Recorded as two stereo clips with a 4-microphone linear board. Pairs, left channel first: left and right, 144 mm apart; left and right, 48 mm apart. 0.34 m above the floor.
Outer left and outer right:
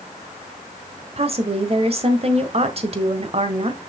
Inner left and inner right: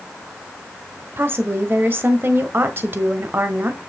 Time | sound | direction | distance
1.2 | a woman speaking | 45° right (ahead or behind) | 1.3 m